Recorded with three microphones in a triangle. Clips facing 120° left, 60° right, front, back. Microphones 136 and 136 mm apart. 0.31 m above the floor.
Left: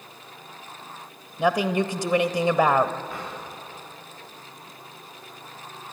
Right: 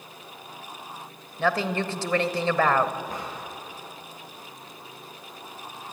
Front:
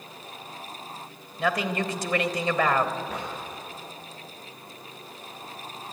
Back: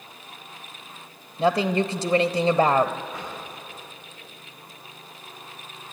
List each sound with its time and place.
1.4 s a woman speaking: straight behind, 0.9 m
3.1 s a drawer: 10° right, 9.5 m